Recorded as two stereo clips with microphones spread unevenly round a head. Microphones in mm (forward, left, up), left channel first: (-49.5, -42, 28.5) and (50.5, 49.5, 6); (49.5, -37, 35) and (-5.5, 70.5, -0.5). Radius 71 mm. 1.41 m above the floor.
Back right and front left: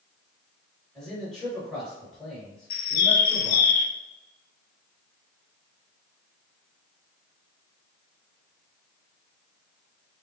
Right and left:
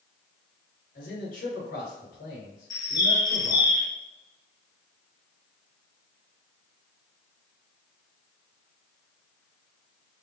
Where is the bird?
135° right, 0.5 m.